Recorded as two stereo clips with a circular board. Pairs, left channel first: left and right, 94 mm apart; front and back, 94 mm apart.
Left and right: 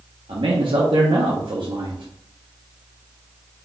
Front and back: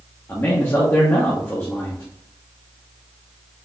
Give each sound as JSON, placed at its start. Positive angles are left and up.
{"t": 0.3, "sound": "a man speaking", "azimuth_deg": -60, "distance_m": 0.8}